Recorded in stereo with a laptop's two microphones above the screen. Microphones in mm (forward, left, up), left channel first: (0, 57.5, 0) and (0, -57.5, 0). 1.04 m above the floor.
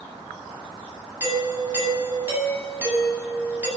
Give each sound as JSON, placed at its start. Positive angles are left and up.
{"t": 1.2, "sound": "a doorbell", "side_deg": -20, "distance_m": 9.5}